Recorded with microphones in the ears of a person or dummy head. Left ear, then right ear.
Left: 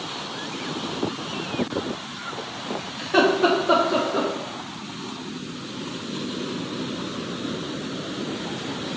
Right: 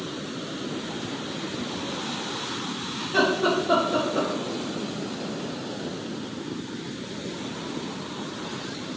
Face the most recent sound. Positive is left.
turn(degrees=75)  # may be behind; listen again after turning